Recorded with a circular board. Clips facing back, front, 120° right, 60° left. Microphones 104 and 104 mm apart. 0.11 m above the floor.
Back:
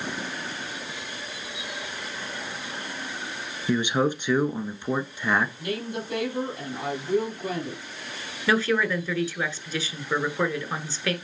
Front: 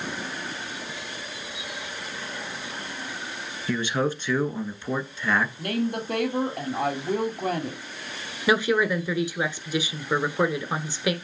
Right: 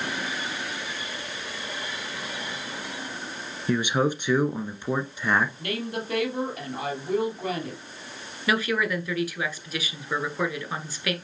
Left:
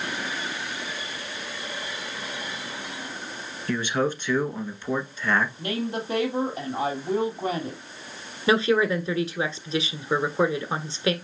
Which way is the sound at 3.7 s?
155° right.